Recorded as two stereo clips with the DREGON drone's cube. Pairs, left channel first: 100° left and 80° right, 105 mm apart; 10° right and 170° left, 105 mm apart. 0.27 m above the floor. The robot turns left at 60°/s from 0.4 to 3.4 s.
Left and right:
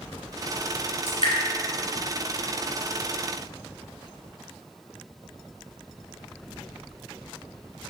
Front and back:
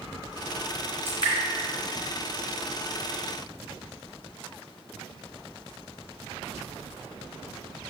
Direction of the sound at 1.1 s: 105° left.